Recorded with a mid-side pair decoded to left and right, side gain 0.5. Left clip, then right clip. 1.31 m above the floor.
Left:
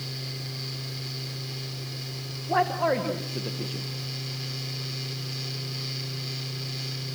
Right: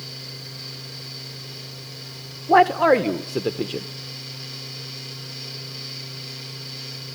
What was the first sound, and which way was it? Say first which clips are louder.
A fan: right 1 dB; 5° left.